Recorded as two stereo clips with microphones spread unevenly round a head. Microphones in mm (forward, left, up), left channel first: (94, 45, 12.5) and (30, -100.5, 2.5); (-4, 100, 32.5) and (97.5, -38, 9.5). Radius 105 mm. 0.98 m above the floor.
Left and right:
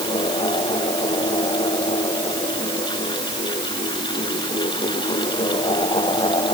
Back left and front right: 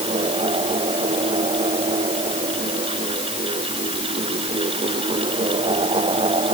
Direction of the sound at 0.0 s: 5° left.